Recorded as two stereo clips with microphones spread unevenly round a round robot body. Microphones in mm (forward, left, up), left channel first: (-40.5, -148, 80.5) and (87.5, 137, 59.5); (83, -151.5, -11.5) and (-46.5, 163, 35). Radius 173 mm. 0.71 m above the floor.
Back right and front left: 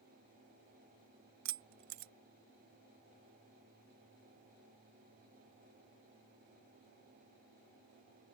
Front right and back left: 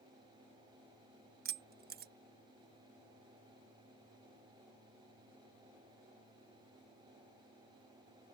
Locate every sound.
1.4 s keys jangling: 50° left